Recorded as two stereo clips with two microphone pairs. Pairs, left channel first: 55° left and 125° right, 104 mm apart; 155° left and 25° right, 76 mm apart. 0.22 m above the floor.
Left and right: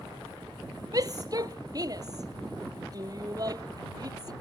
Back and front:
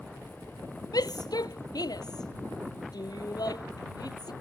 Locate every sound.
0.9 s a shout: 175° right